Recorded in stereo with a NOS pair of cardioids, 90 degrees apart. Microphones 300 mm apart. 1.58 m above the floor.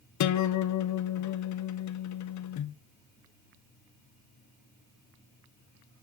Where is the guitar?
70° left, 1.2 m.